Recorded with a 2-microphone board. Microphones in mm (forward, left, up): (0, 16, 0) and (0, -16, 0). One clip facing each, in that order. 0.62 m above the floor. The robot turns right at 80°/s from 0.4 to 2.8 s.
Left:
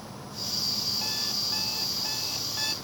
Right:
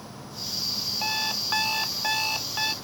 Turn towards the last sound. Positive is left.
turn(degrees=-15)